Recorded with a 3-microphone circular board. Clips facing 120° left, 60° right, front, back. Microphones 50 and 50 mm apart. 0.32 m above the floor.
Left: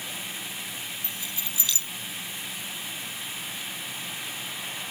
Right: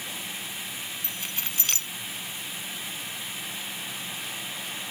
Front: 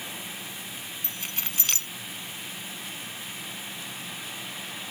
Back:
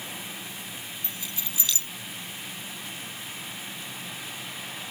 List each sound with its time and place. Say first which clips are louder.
1.0 s keys jangling: right 1 dB, front 1 dB; 30° right